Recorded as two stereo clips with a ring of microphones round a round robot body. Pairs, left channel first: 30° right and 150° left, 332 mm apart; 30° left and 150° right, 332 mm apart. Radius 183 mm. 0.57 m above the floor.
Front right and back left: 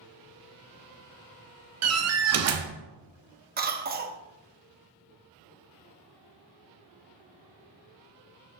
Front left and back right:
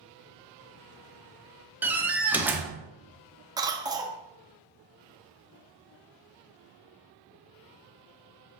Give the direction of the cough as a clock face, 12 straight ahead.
7 o'clock.